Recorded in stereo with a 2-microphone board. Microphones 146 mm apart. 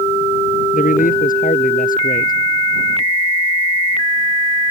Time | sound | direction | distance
0.7 | a man speaking | 70° left (ahead or behind) | ?